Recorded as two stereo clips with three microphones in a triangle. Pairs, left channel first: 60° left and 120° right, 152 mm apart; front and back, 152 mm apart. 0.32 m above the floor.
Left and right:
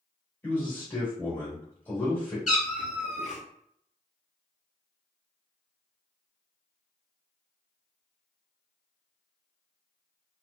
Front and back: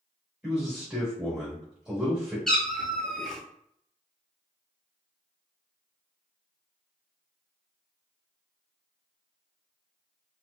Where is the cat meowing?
85° left, 0.6 m.